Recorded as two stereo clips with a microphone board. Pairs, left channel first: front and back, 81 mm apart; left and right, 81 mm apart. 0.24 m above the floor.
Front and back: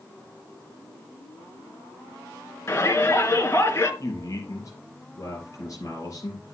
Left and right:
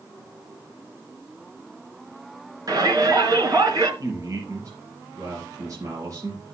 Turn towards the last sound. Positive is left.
turn(degrees=-45)